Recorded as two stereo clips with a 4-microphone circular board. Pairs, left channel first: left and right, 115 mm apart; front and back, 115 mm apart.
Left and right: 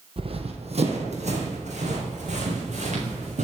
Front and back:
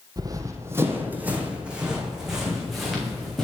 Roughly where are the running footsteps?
Behind right.